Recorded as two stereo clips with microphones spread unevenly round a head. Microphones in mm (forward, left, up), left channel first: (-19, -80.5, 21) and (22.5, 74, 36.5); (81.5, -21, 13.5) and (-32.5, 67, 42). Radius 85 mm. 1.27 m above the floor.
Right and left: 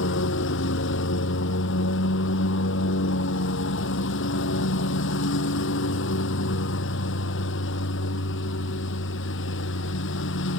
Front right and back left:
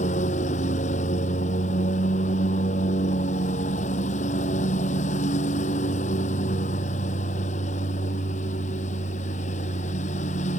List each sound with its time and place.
0.0 s a lawn mower: 90° right